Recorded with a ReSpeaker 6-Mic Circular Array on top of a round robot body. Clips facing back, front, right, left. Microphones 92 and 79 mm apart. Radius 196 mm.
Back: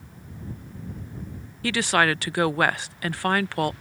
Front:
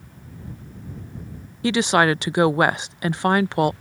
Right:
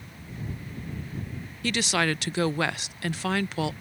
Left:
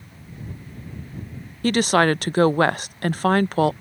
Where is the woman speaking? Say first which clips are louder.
Front 4 dB, left 9 dB; 65° left.